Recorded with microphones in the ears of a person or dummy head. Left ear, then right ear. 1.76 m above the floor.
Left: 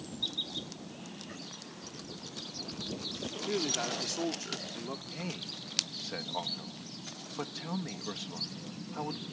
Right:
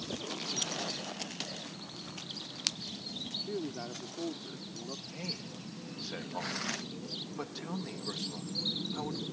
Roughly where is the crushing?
No crushing in this recording.